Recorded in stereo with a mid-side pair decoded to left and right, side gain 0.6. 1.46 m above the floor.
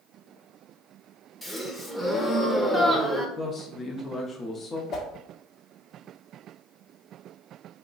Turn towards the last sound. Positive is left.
turn(degrees=45)